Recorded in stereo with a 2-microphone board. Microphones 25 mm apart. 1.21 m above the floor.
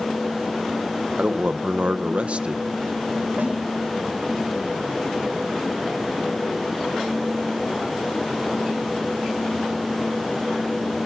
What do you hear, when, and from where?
1.2 s a man speaking: 55° right (ahead or behind), 1.0 m
3.4 s a snare drum: 85° right, 9.5 m